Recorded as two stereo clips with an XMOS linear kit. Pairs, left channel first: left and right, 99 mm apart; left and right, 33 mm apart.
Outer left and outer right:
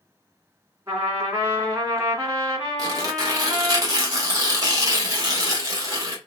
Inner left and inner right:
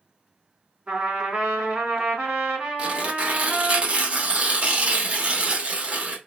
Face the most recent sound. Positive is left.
turn(degrees=-35)  # may be behind; listen again after turning